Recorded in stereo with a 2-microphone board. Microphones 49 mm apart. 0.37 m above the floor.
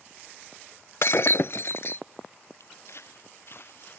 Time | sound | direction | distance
1.0 | breaking glass | 60° left (ahead or behind) | ?
2.6 | footsteps | 65° left (ahead or behind) | ?